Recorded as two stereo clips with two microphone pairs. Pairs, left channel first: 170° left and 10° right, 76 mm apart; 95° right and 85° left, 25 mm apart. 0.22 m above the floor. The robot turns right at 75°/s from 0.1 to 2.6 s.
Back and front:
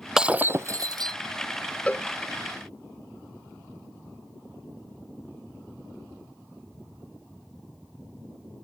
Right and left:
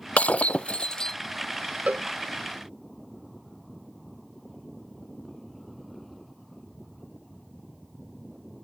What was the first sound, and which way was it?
Breaking glass, 95° right.